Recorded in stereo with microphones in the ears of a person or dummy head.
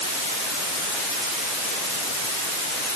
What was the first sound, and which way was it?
Only background noise.